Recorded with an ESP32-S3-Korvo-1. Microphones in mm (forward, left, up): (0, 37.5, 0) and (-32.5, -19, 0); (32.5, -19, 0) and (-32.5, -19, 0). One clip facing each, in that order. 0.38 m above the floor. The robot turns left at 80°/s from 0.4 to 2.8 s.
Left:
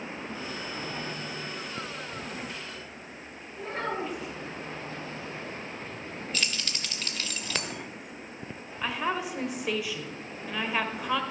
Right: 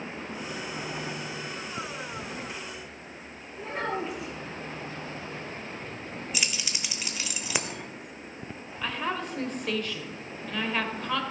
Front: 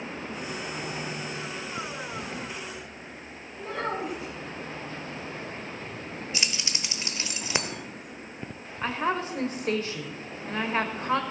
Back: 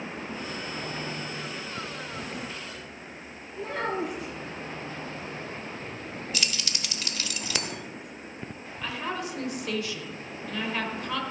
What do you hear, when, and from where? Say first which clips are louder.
3.6 s a child speaking: right 1 dB, back 1 dB; 150° left, 4 m
6.3 s keys jangling: even, even; 50° right, 1.0 m
8.8 s a woman speaking: left 1 dB, front 5 dB; 15° right, 1.5 m